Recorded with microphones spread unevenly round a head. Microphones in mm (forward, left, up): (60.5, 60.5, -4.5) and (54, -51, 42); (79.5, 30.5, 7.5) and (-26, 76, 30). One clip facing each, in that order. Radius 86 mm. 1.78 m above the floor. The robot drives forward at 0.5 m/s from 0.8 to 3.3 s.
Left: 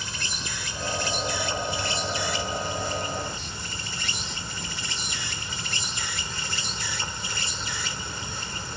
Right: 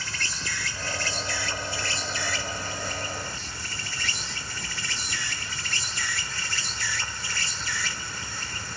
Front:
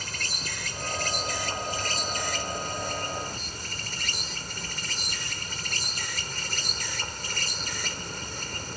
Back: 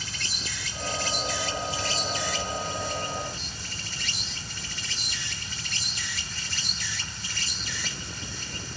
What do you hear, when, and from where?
0.0 s an insect: 15° left